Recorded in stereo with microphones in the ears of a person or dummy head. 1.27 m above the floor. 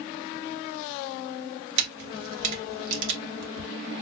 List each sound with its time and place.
1.8 s a camera shutter: 65° right (ahead or behind), 1.9 m